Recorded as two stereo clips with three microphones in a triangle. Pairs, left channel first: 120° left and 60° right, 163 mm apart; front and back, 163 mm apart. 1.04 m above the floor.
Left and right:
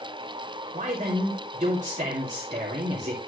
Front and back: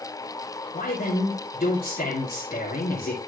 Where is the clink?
No clink in this recording.